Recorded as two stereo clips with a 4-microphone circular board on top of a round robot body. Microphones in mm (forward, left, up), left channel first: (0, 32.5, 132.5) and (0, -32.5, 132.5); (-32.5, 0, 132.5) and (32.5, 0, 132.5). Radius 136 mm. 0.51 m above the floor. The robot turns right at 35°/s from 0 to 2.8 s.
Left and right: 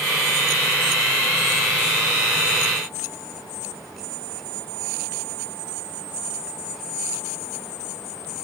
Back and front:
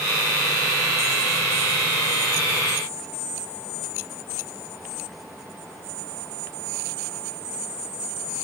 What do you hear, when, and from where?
Only background noise.